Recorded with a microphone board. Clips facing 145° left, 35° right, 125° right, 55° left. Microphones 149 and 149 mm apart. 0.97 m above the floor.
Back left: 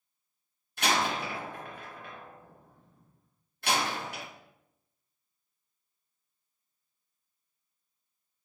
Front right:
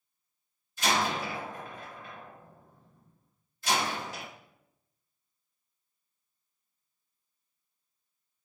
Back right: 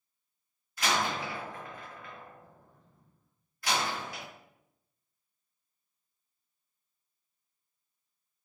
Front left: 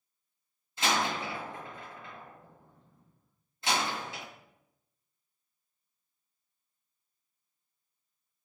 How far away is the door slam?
About 0.8 m.